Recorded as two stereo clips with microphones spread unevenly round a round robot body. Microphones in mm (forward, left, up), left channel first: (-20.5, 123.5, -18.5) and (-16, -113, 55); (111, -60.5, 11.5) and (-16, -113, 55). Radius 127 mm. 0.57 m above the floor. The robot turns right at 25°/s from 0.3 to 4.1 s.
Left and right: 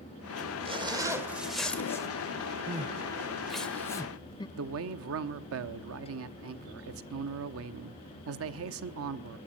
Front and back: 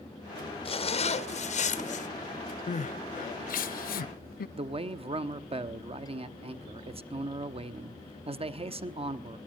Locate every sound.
0.7 s a zipper: 15° right, 1.5 m; by 2.1 s 20° left, 1.5 m
2.7 s crying: 20° right, 0.6 m; by 4.5 s 15° left, 0.6 m
4.6 s a man speaking: 105° right, 1.1 m